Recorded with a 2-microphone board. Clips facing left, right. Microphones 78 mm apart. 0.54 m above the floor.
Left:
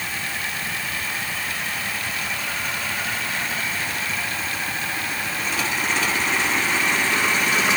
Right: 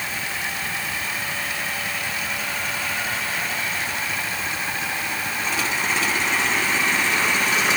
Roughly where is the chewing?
I don't hear chewing.